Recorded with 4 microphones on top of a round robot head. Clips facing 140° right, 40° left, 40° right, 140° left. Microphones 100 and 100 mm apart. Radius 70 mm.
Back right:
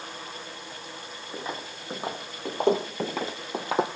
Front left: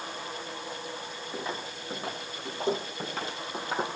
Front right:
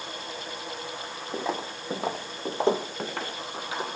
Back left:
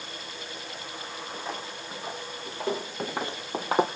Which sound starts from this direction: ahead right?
Footsteps, at 1.3 s.